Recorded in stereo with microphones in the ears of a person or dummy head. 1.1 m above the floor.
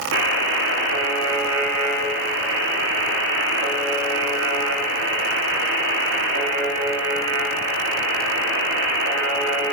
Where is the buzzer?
70° right (ahead or behind), 2.5 m.